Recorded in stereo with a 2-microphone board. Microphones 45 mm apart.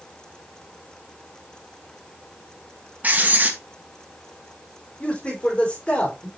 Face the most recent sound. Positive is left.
turn(degrees=30)  # may be behind; listen again after turning